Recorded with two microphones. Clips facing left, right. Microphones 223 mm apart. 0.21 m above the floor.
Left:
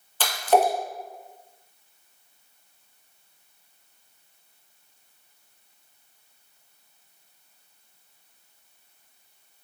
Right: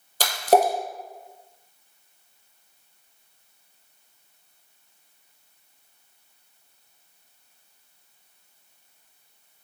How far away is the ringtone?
I don't hear a ringtone.